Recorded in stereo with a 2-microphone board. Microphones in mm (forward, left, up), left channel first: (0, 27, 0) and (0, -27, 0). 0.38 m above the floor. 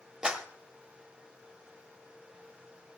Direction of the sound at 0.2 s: 15° right (ahead or behind).